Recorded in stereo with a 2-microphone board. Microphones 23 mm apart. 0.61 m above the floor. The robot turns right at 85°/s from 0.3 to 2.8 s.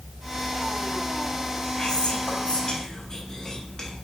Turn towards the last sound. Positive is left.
turn(degrees=20)  # may be behind; listen again after turning